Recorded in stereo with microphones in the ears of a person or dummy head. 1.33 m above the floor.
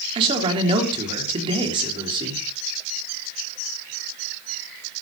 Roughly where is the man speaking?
Right.